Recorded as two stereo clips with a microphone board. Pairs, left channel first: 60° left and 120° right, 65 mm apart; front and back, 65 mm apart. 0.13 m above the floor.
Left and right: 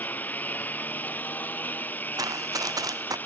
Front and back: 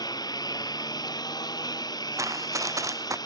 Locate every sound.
0.0 s a lawn mower: 5° right
2.2 s running footsteps: 145° right